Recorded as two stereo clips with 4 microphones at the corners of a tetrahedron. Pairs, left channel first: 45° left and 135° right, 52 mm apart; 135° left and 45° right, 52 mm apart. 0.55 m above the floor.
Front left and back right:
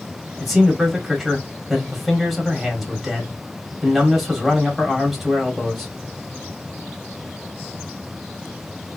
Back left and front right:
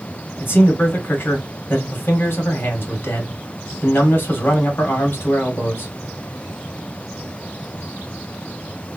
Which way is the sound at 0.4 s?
135° left.